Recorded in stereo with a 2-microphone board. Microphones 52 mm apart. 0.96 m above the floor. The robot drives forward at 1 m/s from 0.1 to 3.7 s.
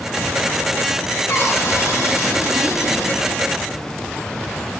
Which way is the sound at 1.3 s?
55° left (ahead or behind).